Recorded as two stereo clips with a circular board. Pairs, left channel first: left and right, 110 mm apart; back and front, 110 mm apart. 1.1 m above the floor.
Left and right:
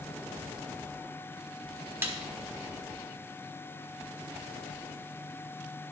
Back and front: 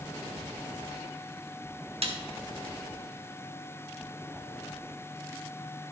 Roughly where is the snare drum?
Ahead.